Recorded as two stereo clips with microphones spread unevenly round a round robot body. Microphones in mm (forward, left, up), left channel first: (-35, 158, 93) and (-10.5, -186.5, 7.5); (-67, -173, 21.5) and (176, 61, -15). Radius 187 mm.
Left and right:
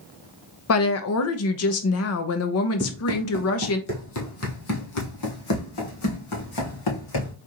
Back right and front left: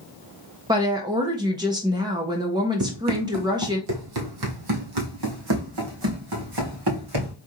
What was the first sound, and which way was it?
A woman speaking, 90° left.